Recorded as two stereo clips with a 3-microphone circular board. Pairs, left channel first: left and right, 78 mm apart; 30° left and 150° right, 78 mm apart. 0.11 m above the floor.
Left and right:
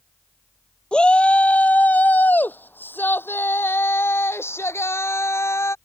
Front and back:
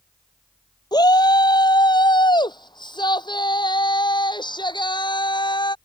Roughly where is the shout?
Ahead.